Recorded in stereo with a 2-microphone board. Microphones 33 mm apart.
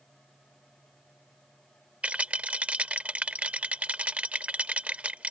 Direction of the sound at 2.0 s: 40° right (ahead or behind).